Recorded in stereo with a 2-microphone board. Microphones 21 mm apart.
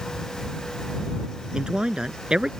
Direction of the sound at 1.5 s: 50° right (ahead or behind).